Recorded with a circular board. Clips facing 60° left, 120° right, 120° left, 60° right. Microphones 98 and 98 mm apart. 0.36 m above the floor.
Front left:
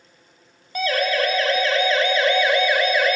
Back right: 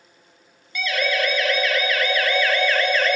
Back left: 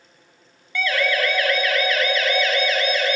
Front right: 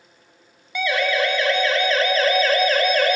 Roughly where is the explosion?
I don't hear an explosion.